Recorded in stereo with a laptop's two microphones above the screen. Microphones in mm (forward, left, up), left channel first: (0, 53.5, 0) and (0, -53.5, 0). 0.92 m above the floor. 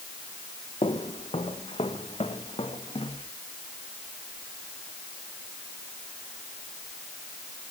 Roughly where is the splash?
I don't hear a splash.